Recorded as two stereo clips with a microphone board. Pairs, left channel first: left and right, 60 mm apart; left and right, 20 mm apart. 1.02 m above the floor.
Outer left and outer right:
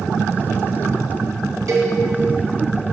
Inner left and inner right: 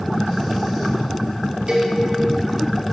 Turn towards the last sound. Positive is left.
turn(degrees=-60)  # may be behind; listen again after turning